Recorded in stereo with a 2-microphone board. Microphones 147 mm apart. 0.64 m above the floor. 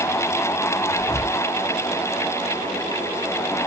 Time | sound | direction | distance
0.9 | whispering | 15° left (ahead or behind) | 1.6 m